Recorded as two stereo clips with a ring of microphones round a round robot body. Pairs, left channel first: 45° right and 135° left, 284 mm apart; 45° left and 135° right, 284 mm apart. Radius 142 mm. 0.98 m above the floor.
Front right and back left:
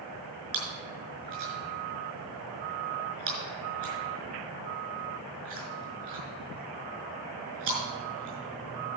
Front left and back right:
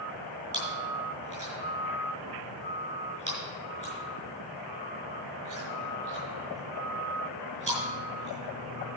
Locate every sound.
0.5 s chewing: 155° left, 5.5 m